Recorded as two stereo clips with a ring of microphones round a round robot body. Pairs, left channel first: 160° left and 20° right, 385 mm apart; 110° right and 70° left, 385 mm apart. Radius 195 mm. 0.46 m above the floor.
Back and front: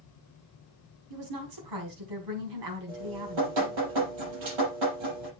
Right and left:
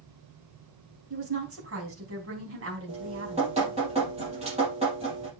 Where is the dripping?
5° right, 6 m.